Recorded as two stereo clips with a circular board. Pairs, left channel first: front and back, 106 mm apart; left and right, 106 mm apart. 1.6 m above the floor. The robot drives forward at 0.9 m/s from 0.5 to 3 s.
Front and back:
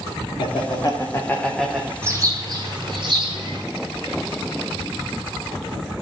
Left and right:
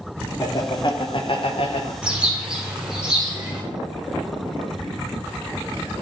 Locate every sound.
0.4 s laughter: 40° left, 1.5 m; by 1.9 s 100° left, 1.0 m
2.0 s a bird: 160° right, 1.3 m; by 3.6 s 170° right, 1.8 m